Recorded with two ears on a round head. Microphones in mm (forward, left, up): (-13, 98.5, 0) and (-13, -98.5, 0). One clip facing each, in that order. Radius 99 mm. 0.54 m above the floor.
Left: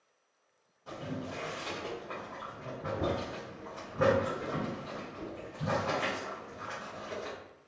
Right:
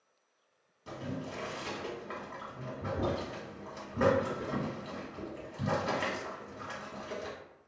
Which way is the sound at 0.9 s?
30° right (ahead or behind).